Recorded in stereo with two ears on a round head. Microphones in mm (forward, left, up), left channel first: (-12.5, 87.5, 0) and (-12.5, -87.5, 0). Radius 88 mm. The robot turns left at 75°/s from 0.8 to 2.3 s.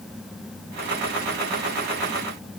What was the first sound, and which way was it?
Only background noise.